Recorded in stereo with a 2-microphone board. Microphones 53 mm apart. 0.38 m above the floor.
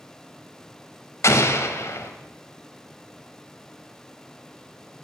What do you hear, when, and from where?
1.2 s an explosion: 65° left (ahead or behind), 0.9 m